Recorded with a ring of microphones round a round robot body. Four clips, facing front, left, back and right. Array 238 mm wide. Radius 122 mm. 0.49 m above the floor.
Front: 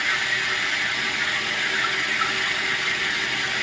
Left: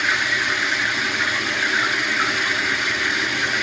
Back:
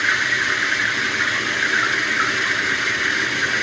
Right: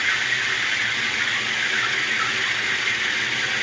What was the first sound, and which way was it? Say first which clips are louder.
Running water: left 3 dB, back 5 dB; 155° left.